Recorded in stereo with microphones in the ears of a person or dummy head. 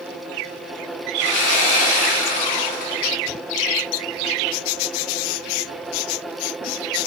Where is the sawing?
40° left (ahead or behind), 0.5 m.